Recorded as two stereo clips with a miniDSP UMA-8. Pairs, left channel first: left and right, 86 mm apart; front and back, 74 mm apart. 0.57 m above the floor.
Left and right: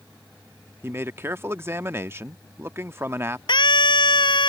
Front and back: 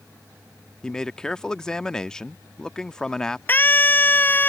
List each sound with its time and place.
0.8 s a man speaking: 75° right
3.5 s a scream: 65° left